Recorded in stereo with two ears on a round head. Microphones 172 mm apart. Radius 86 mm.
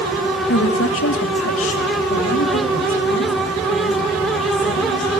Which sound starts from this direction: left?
A woman speaking, at 0.5 s.